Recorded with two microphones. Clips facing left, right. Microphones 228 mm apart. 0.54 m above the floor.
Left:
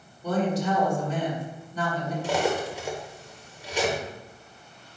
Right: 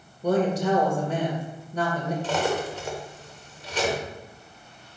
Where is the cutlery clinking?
10° left (ahead or behind), 1.1 m.